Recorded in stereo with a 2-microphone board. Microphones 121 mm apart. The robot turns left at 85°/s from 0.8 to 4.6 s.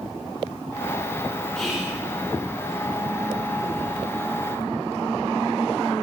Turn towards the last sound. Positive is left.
turn(degrees=110)